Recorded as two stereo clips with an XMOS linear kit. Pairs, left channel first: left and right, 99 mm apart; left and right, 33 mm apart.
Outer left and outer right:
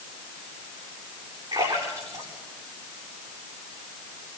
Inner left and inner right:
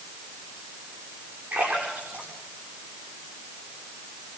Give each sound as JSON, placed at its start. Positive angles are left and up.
{"t": 1.5, "sound": "a splash", "side_deg": -50, "distance_m": 8.0}